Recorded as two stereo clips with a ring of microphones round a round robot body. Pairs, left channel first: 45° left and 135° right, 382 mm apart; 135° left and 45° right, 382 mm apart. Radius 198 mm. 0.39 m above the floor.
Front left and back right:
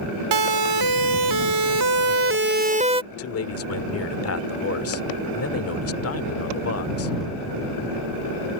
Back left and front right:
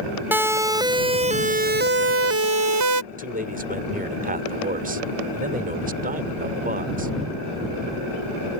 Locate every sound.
0.3 s a siren: 130° right; by 3.0 s 60° right
3.1 s a man speaking: 15° left